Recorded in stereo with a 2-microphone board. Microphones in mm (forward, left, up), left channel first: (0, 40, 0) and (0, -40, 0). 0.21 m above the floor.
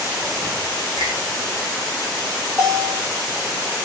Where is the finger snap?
70° right (ahead or behind), 7.5 m.